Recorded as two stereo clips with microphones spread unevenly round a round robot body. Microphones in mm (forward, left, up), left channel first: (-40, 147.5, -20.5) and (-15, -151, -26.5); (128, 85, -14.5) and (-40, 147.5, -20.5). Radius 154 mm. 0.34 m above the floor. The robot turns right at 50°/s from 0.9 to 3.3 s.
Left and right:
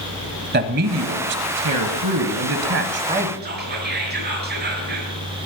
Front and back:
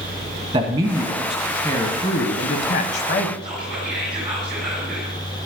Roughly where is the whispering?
Behind right.